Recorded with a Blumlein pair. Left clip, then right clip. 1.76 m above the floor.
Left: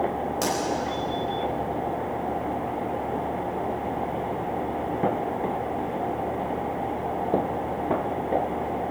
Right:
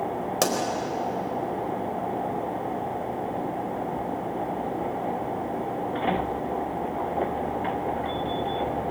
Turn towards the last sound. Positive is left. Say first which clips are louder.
# right 3 dB
turn(degrees=-65)